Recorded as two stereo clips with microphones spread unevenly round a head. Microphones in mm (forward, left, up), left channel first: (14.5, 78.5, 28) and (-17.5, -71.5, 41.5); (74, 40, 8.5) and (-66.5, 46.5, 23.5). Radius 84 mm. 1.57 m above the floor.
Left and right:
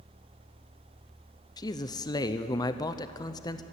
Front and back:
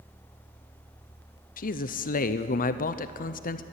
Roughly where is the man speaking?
Ahead.